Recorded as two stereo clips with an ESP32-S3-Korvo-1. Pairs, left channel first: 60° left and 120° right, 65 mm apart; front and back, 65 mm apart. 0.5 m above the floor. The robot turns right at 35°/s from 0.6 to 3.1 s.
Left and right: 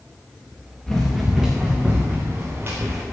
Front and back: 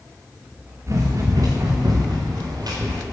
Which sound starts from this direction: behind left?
Running footsteps, at 0.9 s.